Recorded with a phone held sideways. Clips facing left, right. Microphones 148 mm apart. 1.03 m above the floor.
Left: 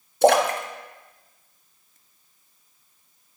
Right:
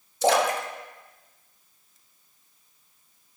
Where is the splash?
60° left (ahead or behind), 0.7 m.